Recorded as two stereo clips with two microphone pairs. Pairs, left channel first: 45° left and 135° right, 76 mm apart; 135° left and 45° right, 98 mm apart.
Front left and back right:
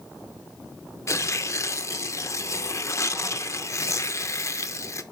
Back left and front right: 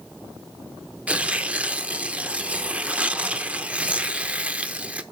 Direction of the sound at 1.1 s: 30° left.